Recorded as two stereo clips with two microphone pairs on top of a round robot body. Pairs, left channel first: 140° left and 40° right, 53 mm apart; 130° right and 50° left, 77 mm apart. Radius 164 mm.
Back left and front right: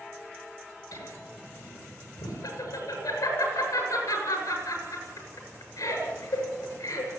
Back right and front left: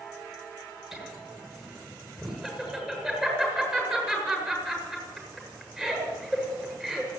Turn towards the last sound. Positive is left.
turn(degrees=130)